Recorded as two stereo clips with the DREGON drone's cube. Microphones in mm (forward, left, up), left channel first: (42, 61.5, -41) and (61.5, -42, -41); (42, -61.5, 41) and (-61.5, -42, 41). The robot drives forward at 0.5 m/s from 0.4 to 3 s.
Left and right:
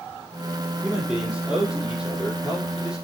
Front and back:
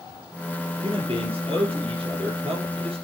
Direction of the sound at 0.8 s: 165° right.